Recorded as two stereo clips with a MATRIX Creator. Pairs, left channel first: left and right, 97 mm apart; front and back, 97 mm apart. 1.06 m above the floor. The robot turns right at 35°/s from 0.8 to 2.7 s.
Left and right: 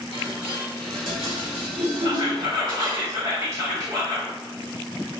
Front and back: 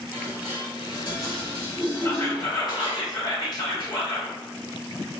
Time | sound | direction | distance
0.1 | dishes clattering | 110° right | 2.0 m
2.0 | whispering | 60° right | 1.4 m